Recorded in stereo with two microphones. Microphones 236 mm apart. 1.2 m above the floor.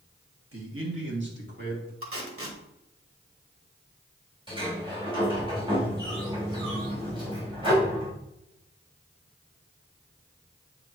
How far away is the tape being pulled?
About 1.7 m.